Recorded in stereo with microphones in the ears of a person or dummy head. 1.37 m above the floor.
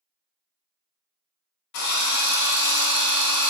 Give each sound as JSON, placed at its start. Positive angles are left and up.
{"t": 1.7, "sound": "a drill", "side_deg": 75, "distance_m": 0.9}